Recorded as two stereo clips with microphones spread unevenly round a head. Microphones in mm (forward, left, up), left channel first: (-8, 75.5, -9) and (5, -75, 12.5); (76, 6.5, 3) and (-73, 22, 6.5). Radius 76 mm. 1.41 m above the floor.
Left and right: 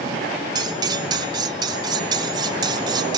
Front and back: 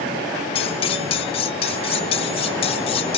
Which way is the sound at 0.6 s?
45° right.